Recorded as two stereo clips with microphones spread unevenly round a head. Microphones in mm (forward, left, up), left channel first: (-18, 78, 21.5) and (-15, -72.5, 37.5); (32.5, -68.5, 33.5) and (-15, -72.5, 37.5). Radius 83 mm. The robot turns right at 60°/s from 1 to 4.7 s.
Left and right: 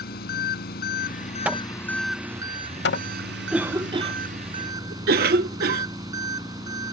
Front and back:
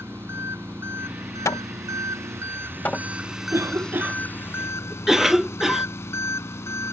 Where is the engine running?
120° left; by 6.9 s 20° right.